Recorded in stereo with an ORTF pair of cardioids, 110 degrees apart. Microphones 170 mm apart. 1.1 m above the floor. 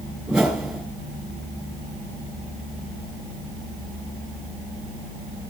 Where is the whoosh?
Straight ahead, 4 m.